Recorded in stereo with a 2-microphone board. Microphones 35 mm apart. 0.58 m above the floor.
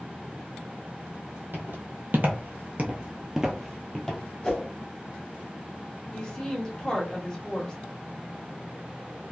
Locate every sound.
1.5 s footsteps: 65° right (ahead or behind), 1.3 m; by 4.2 s 10° left (ahead or behind), 1.2 m
4.4 s a whoosh: 20° left (ahead or behind), 1.0 m
6.1 s a woman speaking: 20° left (ahead or behind), 1.1 m